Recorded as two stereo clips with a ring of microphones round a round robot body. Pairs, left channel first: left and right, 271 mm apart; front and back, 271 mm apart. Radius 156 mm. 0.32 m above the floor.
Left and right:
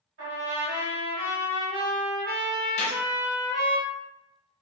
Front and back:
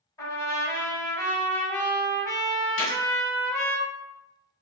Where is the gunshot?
40° left, 1.0 m.